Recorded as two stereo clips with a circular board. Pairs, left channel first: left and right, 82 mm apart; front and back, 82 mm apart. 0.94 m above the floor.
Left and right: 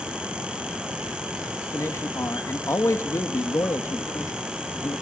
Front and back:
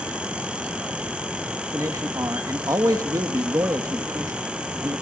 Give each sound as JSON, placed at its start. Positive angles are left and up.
{"t": 1.7, "sound": "a man speaking", "azimuth_deg": 140, "distance_m": 1.3}